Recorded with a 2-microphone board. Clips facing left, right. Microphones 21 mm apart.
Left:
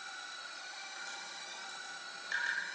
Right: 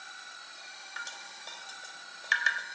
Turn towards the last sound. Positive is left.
turn(degrees=-50)  # may be behind; listen again after turning